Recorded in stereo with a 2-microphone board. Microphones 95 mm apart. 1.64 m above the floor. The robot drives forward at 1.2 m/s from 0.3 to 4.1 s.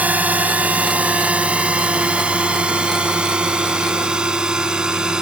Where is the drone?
15° right (ahead or behind); by 5.2 s 10° right (ahead or behind).